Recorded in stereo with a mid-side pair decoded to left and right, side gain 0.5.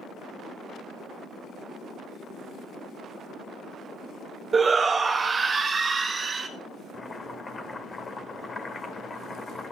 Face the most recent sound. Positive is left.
turn(degrees=25)